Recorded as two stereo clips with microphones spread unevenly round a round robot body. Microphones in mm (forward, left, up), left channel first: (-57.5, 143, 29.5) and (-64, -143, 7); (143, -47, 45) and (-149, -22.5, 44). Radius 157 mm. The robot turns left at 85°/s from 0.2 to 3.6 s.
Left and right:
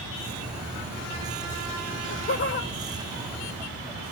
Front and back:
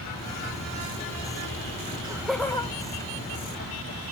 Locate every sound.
1.9 s laughter: 125° left, 1.0 m; by 4.0 s 25° right, 1.0 m